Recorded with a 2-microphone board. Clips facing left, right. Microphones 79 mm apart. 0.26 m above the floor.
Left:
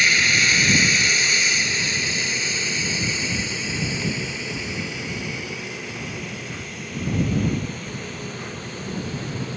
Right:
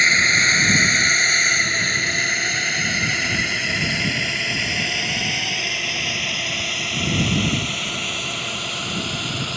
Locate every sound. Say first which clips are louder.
0.0 s a drone: right 2 dB; 30° right (ahead or behind); by 9.6 s 80° right